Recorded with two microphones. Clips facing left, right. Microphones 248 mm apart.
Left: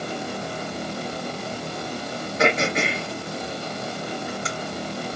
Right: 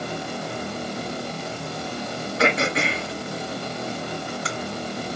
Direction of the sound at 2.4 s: 20° left (ahead or behind).